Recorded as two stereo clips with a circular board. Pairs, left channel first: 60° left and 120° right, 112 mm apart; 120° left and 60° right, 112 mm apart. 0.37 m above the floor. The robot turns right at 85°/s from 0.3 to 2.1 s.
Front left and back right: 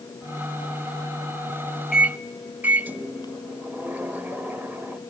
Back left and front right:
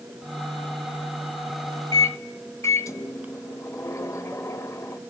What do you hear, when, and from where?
1.9 s a microwave: 155° left, 1.1 m; by 5.0 s 170° left, 1.1 m